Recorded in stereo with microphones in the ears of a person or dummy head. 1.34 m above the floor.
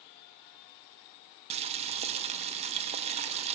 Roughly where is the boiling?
Right.